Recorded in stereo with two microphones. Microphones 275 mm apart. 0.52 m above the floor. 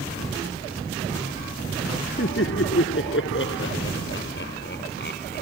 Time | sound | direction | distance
2.2 | laughter | 50° left (ahead or behind) | ?